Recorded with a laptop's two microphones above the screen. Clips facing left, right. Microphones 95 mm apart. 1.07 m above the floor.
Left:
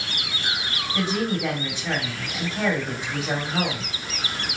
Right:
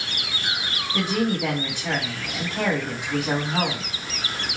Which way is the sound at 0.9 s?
75° right (ahead or behind).